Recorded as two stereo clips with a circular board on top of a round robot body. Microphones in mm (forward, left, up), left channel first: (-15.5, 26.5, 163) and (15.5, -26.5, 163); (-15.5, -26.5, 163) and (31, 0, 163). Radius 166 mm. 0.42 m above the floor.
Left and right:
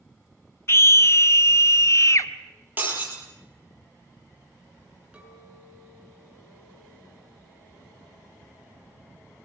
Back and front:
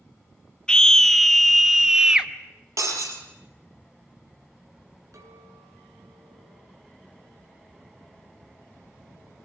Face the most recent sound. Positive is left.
turn(degrees=10)